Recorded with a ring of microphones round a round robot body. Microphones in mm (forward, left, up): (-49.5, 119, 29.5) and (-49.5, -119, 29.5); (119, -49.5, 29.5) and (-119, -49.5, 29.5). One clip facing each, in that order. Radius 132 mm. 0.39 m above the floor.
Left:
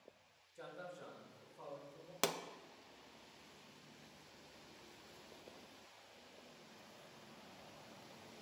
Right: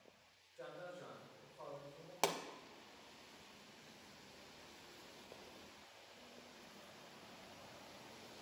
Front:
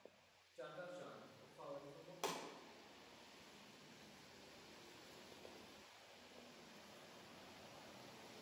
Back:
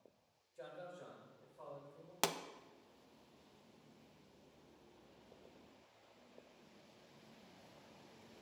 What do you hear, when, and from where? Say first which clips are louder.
0.6 s a man speaking: even, back 1 dB; 85° left, 2.5 m; by 2.1 s 30° left, 3 m
2.2 s a pop: even, back 6 dB; 160° left, 0.5 m